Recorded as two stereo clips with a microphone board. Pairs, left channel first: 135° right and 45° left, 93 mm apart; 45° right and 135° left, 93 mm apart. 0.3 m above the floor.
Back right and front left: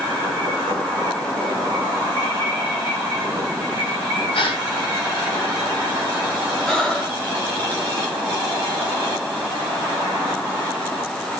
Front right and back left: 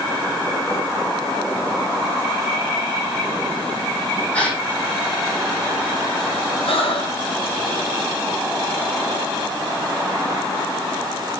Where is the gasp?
120° right, 5.5 m.